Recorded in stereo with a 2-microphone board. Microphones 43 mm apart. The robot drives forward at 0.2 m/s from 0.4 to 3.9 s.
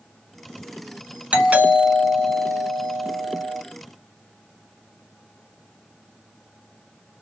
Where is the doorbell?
30° right (ahead or behind), 2 m; by 3.6 s 25° right (ahead or behind), 2.5 m.